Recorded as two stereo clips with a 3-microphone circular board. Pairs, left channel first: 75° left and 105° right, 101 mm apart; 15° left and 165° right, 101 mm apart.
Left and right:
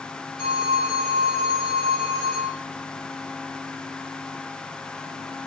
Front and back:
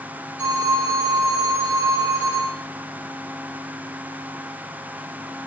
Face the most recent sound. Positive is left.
turn(degrees=125)